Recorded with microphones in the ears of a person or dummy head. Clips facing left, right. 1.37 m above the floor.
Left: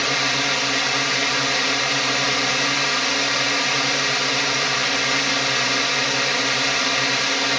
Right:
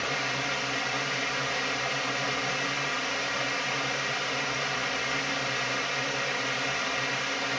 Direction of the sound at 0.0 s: 70° left (ahead or behind).